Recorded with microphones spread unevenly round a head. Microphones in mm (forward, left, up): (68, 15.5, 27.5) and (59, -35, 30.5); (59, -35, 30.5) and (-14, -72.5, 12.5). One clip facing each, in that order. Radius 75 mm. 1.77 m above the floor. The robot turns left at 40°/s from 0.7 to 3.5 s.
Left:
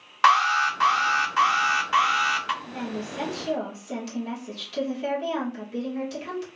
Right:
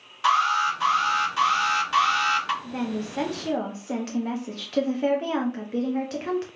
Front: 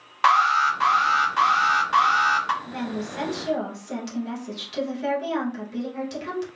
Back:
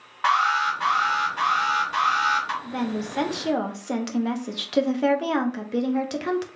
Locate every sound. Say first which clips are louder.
0.2 s an alarm: left 2 dB, front 3 dB; 65° left, 1.0 m; by 2.5 s 10° right, 1.0 m
2.6 s a woman speaking: right 3 dB, back 2 dB; 105° right, 0.7 m; by 6.5 s 140° right, 0.7 m